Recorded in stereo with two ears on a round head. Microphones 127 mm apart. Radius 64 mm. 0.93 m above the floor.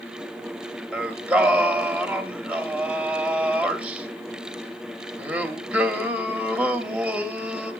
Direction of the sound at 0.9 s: 5° right (ahead or behind).